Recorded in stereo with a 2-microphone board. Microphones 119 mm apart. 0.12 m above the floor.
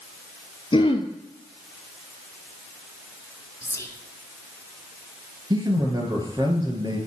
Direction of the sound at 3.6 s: 25° left (ahead or behind).